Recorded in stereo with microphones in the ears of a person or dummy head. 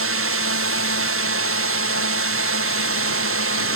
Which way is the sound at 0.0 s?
70° right (ahead or behind).